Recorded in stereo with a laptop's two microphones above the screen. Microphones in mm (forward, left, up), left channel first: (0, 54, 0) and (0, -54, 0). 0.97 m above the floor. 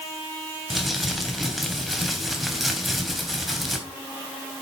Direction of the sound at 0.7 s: Centre (ahead or behind).